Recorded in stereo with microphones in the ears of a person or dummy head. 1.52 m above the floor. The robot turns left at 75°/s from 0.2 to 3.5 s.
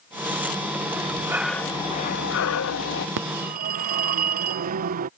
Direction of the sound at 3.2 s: 60° right (ahead or behind).